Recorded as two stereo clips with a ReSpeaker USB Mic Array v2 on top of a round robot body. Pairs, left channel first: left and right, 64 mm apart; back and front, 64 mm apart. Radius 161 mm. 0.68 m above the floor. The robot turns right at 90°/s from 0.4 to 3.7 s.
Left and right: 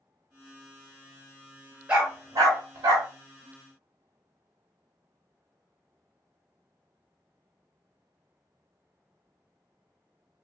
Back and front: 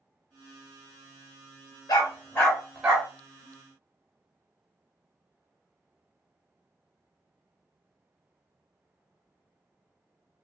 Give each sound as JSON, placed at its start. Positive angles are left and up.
{"t": 1.9, "sound": "a dog barking", "azimuth_deg": -160, "distance_m": 0.9}